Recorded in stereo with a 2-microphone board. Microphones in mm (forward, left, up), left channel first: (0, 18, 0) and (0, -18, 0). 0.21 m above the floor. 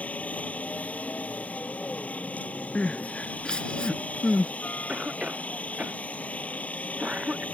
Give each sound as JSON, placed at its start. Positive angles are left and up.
{"t": 0.0, "sound": "a helicopter", "side_deg": 40}
{"t": 2.8, "sound": "crying", "side_deg": 25}
{"t": 4.9, "sound": "a cough", "side_deg": -25}